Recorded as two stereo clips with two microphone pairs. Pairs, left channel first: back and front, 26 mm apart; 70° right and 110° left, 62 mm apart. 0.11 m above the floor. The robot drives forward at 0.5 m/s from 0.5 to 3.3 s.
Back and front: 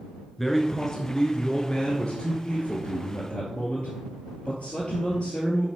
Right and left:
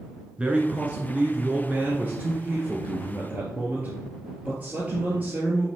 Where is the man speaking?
105° left, 1.1 m; by 5.7 s 165° left, 1.8 m.